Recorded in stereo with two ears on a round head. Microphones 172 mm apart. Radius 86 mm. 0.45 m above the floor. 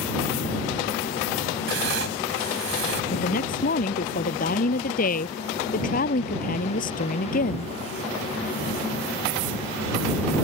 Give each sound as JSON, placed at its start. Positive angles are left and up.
{"t": 1.7, "sound": "writing", "side_deg": -65}
{"t": 3.1, "sound": "a woman speaking", "side_deg": 45}